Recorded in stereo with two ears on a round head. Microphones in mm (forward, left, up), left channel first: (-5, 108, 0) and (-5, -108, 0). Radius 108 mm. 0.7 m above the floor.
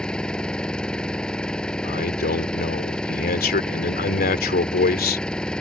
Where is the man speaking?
40° left (ahead or behind).